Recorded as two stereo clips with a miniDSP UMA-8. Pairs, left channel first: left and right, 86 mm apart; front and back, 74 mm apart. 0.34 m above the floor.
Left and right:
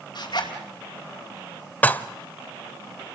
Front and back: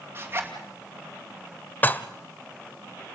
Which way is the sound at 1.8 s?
35° left.